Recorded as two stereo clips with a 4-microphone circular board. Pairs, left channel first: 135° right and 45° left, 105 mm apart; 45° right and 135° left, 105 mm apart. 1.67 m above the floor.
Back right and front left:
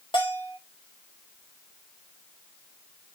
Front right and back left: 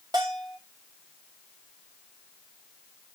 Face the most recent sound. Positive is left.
turn(degrees=-175)